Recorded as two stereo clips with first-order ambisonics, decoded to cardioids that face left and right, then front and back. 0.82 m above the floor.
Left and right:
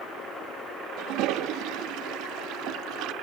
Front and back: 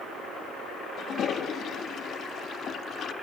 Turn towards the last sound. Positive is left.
turn(degrees=-55)